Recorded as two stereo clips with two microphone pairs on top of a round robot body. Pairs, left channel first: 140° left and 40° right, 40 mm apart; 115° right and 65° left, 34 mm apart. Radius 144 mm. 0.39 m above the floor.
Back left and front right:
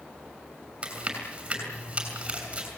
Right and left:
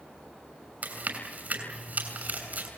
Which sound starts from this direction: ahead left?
Chewing, at 0.8 s.